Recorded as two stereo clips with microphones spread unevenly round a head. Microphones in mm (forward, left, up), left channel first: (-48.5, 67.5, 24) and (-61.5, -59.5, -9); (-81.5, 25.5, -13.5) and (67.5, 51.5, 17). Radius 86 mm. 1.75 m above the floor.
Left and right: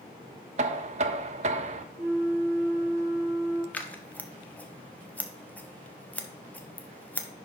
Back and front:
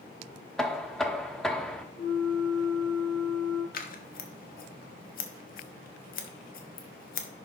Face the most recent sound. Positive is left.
turn(degrees=160)